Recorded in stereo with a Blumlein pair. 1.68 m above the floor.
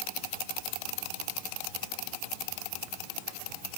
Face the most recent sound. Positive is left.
No sound to turn to.